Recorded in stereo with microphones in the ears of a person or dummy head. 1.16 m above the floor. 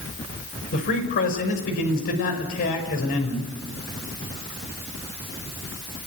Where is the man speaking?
55° left (ahead or behind), 5 m.